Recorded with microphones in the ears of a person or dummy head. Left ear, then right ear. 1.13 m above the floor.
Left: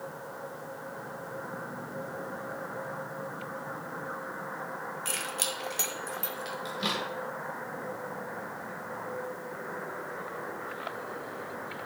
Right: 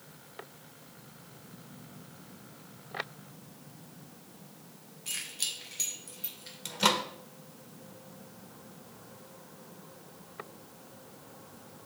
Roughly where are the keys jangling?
Left.